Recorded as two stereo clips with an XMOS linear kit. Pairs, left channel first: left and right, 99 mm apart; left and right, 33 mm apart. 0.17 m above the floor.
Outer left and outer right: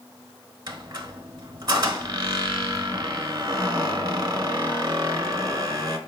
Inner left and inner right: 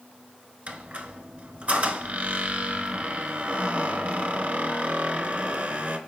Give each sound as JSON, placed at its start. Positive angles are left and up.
{"t": 0.7, "sound": "a squeak", "side_deg": -45, "distance_m": 0.6}